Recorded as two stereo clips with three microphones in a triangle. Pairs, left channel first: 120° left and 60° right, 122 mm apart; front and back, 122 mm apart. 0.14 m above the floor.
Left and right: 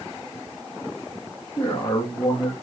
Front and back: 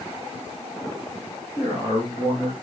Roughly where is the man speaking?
Ahead left.